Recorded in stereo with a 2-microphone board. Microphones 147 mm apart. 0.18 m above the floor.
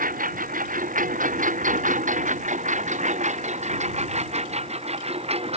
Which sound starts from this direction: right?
A lawn mower, at 0.0 s.